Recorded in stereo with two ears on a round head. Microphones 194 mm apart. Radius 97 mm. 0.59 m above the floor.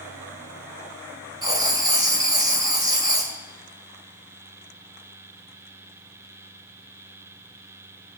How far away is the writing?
About 2.5 m.